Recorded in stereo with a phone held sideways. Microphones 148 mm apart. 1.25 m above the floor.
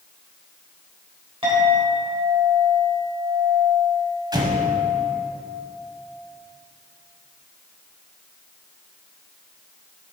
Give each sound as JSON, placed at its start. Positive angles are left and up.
{"t": 1.4, "sound": "a clink", "side_deg": -40, "distance_m": 3.5}
{"t": 4.3, "sound": "an explosion", "side_deg": -30, "distance_m": 1.2}